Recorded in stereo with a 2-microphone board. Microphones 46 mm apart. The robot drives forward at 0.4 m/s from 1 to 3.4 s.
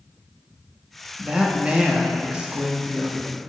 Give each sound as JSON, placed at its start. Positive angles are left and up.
{"t": 1.2, "sound": "a woman speaking", "side_deg": -25, "distance_m": 0.8}